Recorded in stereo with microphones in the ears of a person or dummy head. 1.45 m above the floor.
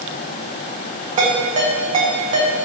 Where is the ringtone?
30° right (ahead or behind), 1.8 m.